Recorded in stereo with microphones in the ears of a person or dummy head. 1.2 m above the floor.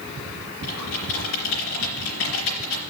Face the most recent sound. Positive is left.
turn(degrees=65)  # may be behind; listen again after turning